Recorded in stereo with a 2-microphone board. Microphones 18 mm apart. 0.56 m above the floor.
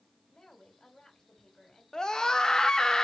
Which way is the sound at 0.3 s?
50° left (ahead or behind).